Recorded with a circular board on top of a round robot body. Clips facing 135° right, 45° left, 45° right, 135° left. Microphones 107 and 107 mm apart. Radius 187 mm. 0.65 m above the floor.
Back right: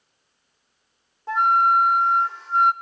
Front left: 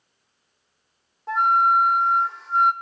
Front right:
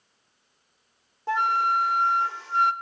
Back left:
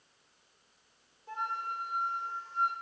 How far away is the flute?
About 0.6 m.